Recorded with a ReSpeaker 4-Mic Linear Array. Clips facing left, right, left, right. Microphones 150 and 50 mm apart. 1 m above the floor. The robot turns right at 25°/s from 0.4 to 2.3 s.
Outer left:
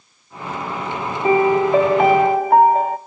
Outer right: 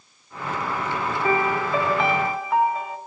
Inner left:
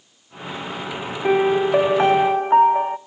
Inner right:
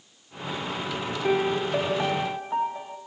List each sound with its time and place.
1.2 s a piano: 25° left (ahead or behind), 0.6 m; by 3.0 s 55° left (ahead or behind), 0.6 m